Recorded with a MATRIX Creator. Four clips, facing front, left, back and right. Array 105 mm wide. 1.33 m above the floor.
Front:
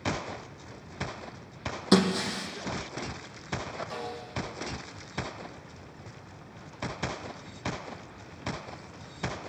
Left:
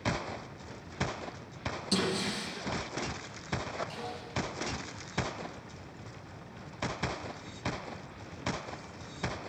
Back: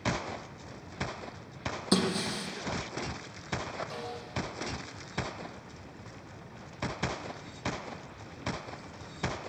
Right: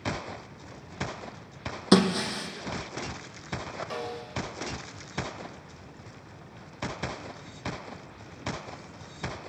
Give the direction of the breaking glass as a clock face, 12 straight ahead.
2 o'clock.